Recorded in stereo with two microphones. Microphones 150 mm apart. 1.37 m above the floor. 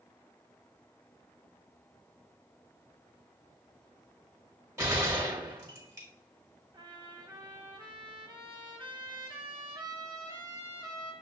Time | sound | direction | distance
4.8 | a gunshot | 20° right (ahead or behind) | 1.5 m
6.7 | a trumpet | 30° right (ahead or behind) | 1.1 m